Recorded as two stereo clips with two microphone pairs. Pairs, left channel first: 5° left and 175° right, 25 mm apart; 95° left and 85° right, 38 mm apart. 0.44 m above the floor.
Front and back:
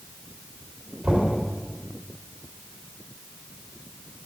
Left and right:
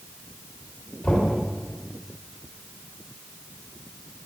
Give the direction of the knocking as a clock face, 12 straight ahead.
7 o'clock.